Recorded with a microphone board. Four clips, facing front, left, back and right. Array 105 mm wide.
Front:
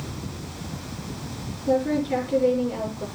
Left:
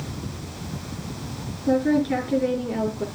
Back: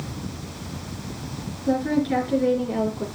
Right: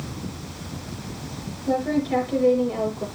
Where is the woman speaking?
130° left, 6.5 m.